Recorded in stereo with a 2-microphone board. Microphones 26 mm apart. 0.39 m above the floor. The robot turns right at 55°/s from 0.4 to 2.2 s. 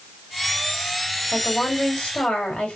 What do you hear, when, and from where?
1.3 s a woman speaking: 50° left, 2 m; by 2.8 s 100° left, 2 m